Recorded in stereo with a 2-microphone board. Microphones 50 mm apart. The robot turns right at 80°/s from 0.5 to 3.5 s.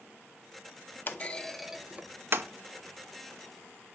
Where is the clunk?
40° left (ahead or behind), 0.7 m; by 2.5 s 60° right (ahead or behind), 0.7 m.